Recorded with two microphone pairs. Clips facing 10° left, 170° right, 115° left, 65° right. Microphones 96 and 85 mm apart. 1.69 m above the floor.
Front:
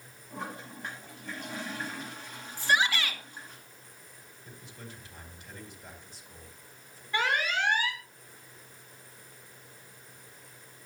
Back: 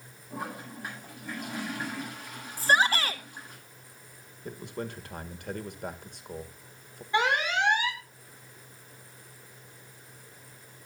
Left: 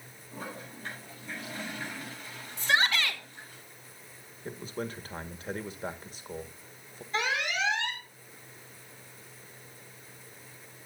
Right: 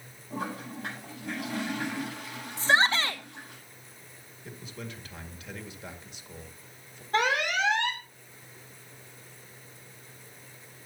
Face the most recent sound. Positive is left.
turn(degrees=-100)